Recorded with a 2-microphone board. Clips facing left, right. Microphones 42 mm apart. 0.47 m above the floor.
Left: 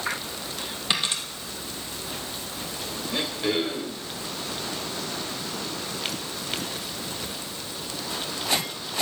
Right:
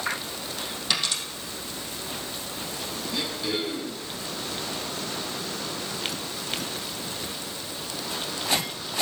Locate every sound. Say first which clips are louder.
0.9 s a dropped coin: left 1 dB; 25° left (ahead or behind), 3 m
3.1 s throat clearing: left 4 dB; 40° left (ahead or behind), 2.5 m